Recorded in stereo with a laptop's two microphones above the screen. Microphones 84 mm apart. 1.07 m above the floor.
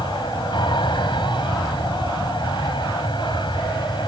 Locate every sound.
0.0 s an aircraft: 70° left (ahead or behind)